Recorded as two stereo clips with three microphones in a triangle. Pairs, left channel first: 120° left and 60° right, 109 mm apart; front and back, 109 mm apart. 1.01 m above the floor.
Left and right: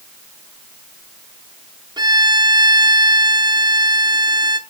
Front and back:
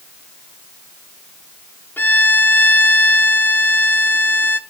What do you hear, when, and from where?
2.0 s a violin: 60° right, 0.6 m